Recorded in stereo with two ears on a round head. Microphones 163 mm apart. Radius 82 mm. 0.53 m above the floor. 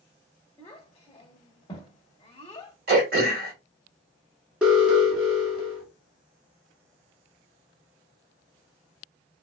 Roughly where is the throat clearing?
Right.